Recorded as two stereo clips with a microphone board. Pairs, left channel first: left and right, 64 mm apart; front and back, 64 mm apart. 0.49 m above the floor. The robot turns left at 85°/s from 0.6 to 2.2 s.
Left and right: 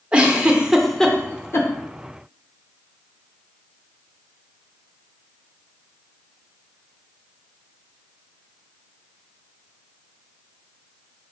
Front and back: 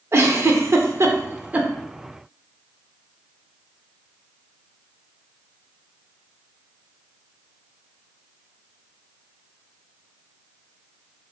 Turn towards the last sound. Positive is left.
turn(degrees=65)